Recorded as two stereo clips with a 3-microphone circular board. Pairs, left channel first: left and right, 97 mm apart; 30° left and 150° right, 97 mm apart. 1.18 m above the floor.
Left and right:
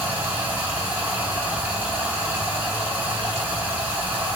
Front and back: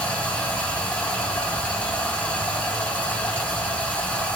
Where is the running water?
35° right, 0.8 m.